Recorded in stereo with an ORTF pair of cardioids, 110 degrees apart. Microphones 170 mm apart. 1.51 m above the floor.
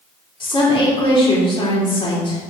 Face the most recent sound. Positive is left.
turn(degrees=30)